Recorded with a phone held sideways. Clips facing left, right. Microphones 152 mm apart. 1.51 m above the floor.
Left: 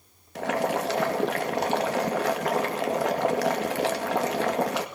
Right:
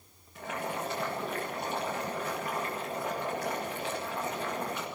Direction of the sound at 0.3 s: 85° left.